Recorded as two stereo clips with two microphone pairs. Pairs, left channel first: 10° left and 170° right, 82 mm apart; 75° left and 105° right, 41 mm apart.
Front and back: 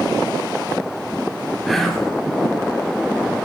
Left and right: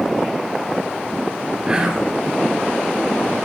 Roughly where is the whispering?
Right.